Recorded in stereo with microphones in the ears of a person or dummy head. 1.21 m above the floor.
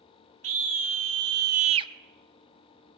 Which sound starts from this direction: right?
A scream, at 0.4 s.